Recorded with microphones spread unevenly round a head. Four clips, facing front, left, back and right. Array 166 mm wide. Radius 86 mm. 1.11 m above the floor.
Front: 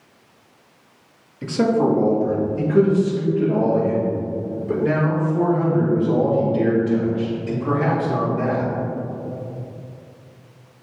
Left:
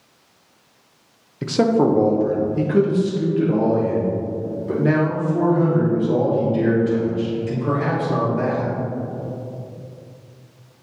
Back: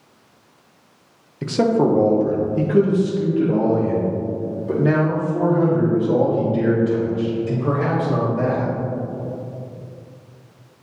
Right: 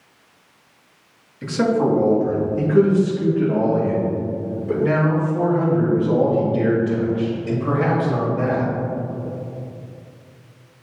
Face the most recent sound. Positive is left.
turn(degrees=160)